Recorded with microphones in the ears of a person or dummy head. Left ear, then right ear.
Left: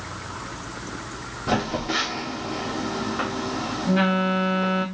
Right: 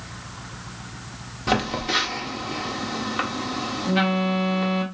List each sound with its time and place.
1.5 s a phone buzzing: 40° right (ahead or behind), 1.3 m